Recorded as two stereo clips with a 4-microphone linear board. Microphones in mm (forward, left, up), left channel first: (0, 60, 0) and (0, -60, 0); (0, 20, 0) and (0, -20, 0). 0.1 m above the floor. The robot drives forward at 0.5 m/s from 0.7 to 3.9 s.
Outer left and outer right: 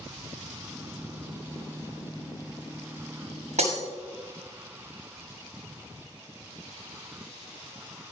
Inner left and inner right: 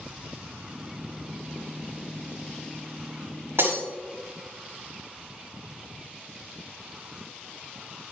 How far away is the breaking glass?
About 6 m.